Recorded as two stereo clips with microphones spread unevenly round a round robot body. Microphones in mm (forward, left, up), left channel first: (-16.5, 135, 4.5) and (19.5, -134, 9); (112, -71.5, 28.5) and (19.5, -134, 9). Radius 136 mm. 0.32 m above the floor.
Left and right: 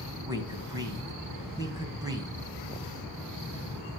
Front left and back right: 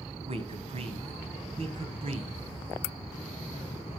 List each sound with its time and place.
0.2 s a man speaking: 160° right, 2 m